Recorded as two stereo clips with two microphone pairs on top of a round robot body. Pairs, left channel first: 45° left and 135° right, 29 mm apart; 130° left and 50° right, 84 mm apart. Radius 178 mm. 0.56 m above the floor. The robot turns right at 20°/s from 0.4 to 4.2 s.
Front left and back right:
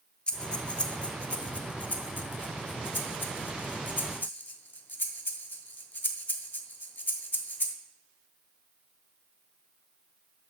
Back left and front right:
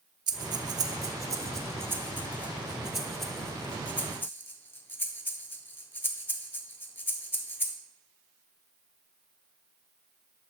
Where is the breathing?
15° right, 0.7 m; by 7.8 s 65° left, 0.7 m.